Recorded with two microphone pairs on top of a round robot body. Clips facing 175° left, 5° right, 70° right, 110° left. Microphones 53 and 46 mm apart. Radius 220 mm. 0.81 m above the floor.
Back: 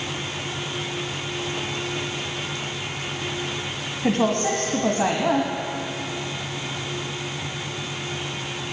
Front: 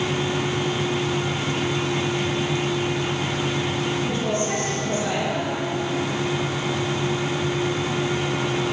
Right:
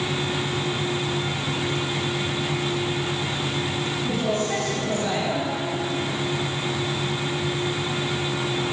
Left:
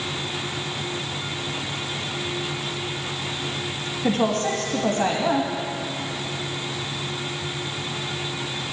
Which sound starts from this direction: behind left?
A woman speaking, at 4.0 s.